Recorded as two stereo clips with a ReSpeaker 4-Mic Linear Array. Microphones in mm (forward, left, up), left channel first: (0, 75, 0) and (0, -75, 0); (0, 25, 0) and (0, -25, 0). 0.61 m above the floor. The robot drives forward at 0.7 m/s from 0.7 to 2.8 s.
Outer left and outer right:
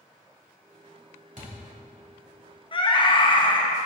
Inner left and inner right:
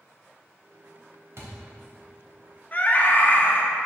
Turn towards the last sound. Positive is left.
turn(degrees=35)  # may be behind; listen again after turning